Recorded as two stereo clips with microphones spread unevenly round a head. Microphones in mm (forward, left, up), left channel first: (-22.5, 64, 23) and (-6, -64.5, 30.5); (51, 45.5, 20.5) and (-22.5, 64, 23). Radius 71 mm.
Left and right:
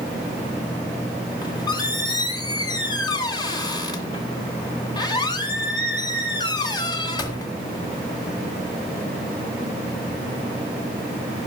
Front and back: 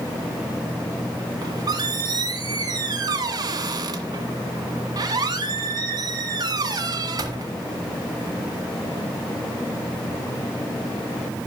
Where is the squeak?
155° left, 1.9 m.